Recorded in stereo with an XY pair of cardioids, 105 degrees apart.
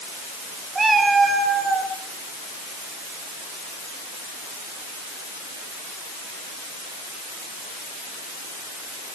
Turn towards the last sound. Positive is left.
turn(degrees=-45)